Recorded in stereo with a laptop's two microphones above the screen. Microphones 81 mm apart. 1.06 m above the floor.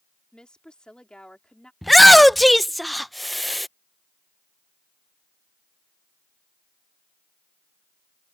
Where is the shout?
Centre (ahead or behind).